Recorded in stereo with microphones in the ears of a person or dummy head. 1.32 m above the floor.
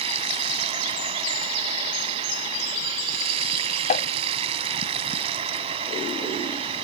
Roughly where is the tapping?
Left.